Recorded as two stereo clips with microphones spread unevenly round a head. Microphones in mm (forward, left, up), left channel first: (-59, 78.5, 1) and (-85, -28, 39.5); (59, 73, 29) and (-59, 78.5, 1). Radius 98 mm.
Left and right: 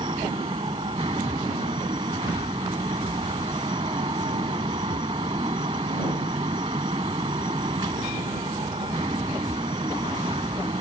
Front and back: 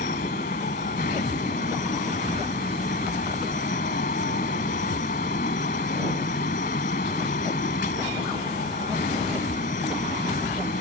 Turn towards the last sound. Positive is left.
turn(degrees=-40)